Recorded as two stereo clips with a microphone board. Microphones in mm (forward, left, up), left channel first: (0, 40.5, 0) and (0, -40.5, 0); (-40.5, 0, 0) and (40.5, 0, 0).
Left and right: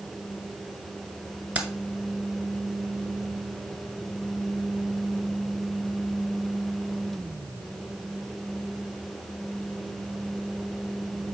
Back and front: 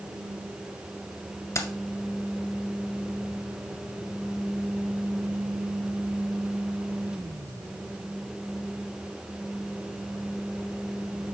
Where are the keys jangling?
155° right, 1.3 m.